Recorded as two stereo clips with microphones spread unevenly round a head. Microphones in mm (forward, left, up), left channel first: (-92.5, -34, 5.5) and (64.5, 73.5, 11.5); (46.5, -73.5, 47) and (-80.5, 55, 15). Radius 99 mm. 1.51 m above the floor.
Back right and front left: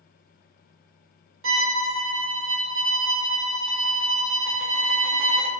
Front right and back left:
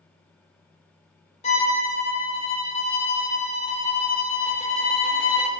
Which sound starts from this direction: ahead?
A violin, at 1.4 s.